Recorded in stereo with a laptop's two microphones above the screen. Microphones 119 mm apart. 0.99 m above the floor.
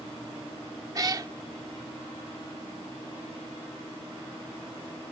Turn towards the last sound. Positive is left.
turn(degrees=-35)  # may be behind; listen again after turning